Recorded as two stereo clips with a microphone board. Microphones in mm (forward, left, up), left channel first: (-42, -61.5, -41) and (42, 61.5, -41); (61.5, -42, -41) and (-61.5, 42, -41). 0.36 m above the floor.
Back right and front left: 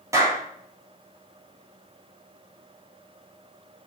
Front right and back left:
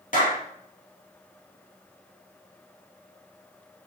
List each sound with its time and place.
0.1 s a clap: 15° right, 6 m